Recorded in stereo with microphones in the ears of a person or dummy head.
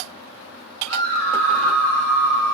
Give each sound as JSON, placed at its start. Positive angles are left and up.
{"t": 0.9, "sound": "a scream", "side_deg": 5, "distance_m": 4.5}